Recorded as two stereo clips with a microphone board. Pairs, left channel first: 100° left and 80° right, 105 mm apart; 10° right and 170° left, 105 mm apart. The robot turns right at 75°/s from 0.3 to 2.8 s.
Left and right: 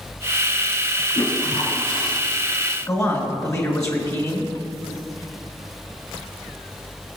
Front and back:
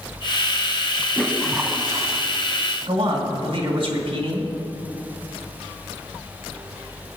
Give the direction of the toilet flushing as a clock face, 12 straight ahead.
10 o'clock.